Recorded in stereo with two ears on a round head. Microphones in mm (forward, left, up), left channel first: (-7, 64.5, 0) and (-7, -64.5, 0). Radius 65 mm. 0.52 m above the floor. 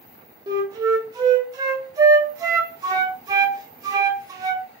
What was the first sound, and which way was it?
A flute, 25° right (ahead or behind).